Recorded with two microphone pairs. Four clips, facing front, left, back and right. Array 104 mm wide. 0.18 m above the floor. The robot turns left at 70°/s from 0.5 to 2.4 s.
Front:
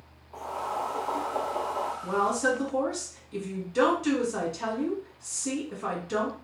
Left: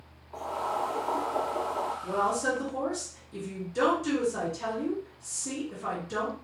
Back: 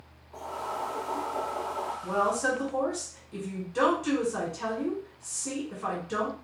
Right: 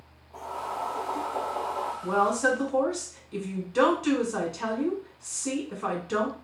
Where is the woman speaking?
75° right, 1.8 m; by 6.3 s 100° right, 1.8 m.